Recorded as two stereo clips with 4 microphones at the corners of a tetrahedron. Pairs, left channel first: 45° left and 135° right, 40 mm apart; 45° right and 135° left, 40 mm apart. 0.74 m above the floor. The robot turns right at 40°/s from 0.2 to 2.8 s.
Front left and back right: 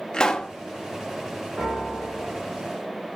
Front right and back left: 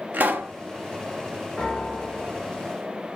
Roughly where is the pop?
Left.